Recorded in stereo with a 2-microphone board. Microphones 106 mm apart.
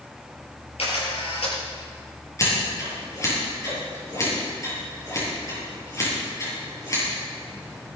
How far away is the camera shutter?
About 5.5 m.